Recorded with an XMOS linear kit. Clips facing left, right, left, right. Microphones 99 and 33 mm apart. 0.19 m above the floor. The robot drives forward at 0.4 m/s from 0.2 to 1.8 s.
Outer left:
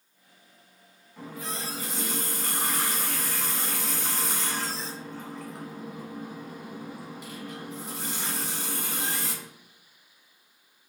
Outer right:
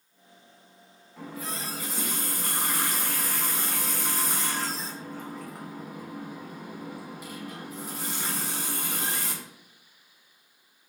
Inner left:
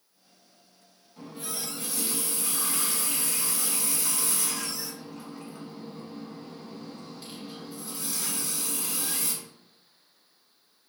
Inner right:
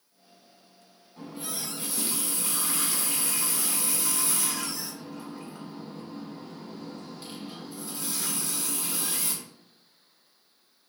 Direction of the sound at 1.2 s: 5° right (ahead or behind).